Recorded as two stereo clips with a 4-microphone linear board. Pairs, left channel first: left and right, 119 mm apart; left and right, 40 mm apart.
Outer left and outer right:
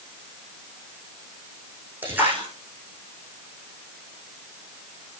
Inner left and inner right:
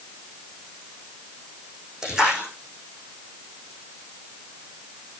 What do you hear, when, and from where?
2.0 s a splash: 15° right (ahead or behind), 9.5 m